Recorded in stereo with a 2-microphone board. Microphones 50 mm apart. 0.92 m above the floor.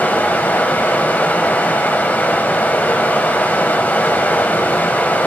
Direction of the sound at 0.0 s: 35° left (ahead or behind).